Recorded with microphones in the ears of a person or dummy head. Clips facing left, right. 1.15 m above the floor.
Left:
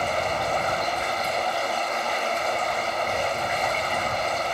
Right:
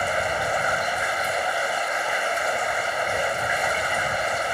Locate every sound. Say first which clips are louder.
0.0 s running water: even; 25° right (ahead or behind)